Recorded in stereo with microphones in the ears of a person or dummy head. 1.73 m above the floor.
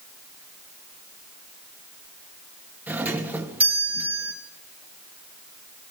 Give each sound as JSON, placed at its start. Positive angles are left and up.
{"t": 2.9, "sound": "a doorbell", "side_deg": -5, "distance_m": 3.0}